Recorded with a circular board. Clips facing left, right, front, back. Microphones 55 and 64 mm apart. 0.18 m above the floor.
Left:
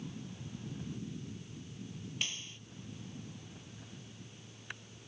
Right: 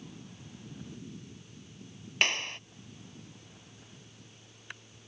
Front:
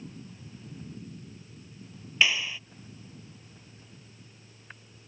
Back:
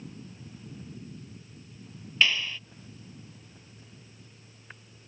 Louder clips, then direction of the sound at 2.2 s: Right 13 dB, even; 80° right.